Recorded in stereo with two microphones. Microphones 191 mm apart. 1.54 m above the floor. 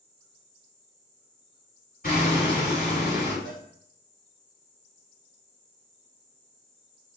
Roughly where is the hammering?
Left.